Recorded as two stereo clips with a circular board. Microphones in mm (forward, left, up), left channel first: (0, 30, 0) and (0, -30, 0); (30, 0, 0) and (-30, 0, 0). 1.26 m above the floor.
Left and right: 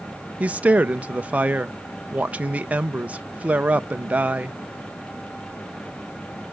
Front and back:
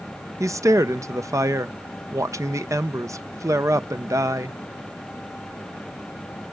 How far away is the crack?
I don't hear a crack.